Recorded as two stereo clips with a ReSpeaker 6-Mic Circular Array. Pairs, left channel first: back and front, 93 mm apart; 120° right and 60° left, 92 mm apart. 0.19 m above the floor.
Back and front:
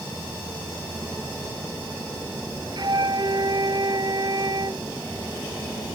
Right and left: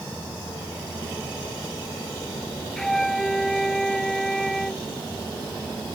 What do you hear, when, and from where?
2.8 s a flute: 35° right